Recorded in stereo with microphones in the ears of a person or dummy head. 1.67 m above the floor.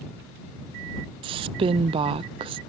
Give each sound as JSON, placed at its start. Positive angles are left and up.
{"t": 1.2, "sound": "a woman speaking", "side_deg": -25}